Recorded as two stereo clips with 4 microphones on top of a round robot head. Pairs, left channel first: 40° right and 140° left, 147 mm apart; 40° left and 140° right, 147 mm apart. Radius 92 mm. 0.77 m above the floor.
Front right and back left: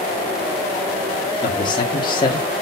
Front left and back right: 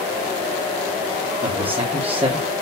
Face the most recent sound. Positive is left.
turn(degrees=-95)